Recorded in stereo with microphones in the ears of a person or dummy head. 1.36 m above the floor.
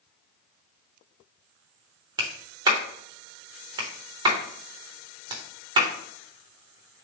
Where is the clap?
30° right (ahead or behind), 0.6 m.